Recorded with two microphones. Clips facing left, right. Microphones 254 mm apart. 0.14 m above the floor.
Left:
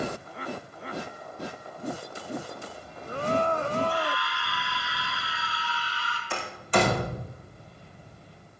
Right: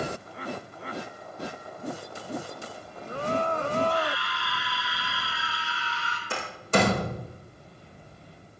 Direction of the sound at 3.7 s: 45° right (ahead or behind).